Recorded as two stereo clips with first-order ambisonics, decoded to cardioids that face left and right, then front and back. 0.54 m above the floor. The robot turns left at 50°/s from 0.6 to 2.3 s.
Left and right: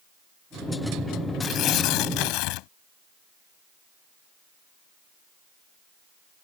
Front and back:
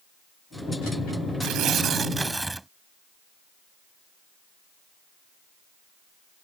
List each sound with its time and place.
1.4 s tearing paper: 140° left; by 2.7 s 95° left